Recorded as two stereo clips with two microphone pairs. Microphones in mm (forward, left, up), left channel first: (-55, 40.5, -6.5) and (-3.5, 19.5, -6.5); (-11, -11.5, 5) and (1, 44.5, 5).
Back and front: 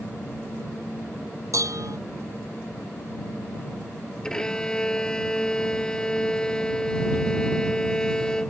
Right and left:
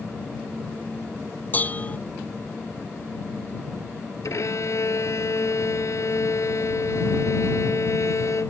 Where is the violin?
130° right.